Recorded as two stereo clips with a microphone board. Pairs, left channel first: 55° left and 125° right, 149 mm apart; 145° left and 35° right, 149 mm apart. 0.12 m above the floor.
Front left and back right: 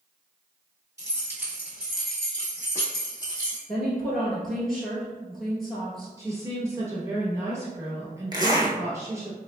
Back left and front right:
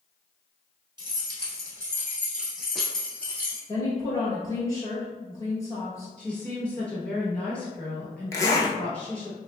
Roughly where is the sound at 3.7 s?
Behind left.